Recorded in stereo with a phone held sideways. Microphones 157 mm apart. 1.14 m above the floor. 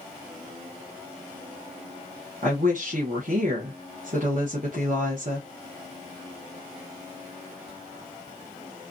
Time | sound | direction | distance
2.4 | a woman speaking | 60° right (ahead or behind) | 0.8 m